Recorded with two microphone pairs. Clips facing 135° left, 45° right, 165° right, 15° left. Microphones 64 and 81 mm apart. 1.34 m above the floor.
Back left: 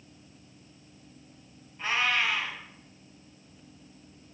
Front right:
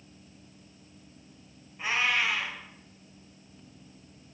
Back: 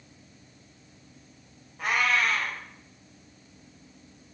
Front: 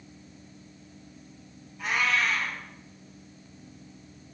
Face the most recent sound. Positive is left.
turn(degrees=-125)